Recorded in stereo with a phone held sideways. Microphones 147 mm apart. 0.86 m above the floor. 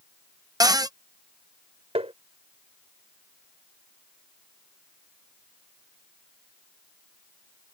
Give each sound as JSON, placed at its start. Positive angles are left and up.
{"t": 0.6, "sound": "a cupboard door", "side_deg": -25}
{"t": 1.9, "sound": "tapping", "side_deg": -40}